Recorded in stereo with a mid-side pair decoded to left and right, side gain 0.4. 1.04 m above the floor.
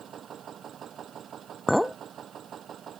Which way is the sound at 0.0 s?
60° right.